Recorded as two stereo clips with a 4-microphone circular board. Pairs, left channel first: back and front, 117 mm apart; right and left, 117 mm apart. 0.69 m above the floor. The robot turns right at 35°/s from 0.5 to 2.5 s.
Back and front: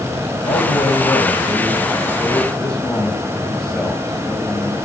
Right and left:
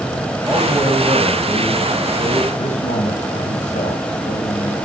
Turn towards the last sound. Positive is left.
turn(degrees=-95)